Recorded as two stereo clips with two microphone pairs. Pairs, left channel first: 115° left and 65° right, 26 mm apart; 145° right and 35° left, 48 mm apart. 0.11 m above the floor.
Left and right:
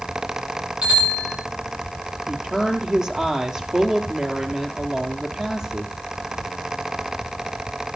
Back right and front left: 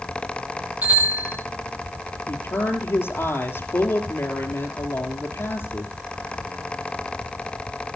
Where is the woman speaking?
125° right, 3.5 m.